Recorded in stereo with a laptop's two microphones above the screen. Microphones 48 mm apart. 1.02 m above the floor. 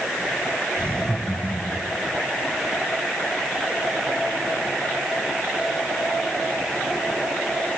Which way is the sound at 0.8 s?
5° left (ahead or behind).